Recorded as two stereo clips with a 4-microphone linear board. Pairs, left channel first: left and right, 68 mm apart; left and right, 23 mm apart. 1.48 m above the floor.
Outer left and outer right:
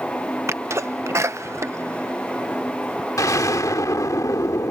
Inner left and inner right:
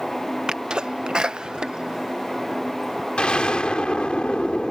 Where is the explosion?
55° left (ahead or behind).